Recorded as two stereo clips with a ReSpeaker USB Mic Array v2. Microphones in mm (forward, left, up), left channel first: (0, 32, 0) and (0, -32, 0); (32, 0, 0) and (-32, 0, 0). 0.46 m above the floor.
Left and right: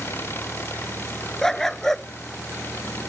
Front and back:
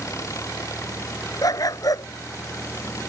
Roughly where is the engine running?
Ahead left.